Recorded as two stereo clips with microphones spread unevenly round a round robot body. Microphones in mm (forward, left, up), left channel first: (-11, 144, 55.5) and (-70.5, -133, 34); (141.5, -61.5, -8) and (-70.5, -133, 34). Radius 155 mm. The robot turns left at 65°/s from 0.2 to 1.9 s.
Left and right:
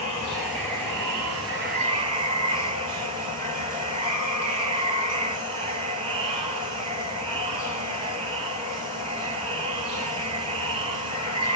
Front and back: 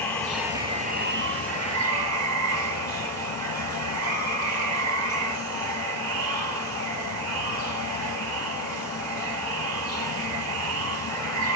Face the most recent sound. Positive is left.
turn(degrees=-175)